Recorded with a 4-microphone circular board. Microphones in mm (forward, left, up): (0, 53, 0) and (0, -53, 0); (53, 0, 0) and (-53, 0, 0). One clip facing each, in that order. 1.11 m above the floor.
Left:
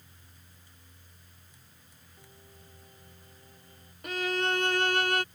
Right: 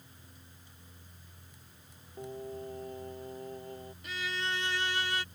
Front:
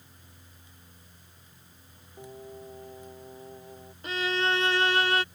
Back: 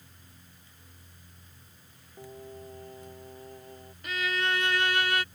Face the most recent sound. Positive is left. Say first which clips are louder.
# left 8 dB, front 3 dB
turn(degrees=60)